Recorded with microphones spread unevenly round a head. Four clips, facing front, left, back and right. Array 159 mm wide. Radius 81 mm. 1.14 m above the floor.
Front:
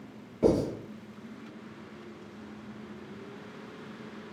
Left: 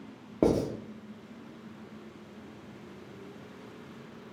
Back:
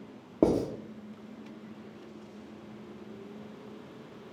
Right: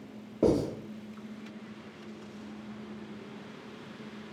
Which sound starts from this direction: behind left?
Writing, at 0.4 s.